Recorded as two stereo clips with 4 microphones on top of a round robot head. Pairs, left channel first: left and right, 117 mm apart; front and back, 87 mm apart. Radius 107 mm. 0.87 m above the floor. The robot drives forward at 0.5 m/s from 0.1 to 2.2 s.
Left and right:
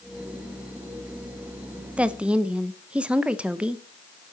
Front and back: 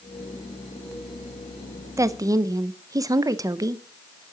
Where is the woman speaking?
165° right, 0.9 m.